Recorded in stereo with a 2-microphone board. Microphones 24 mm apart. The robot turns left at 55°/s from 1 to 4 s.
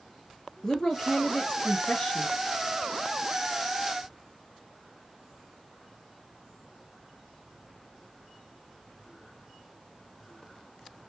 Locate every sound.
0.6 s a woman speaking: 155° left, 2 m; by 2.3 s 85° left, 2 m